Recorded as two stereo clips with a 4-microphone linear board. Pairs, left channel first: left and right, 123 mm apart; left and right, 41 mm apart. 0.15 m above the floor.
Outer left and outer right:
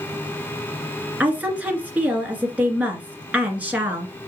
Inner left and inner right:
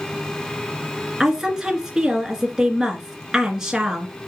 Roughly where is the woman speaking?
Centre.